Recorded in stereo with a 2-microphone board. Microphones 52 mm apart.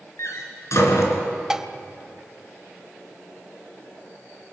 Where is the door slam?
70° left (ahead or behind), 3 m.